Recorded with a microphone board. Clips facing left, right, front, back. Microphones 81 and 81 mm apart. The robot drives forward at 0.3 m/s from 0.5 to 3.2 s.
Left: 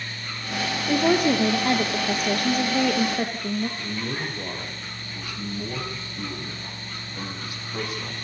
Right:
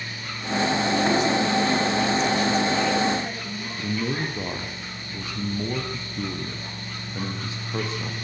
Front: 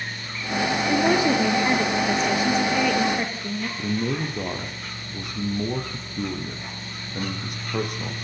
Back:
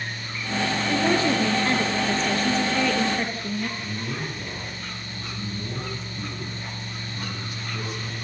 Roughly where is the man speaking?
Ahead right.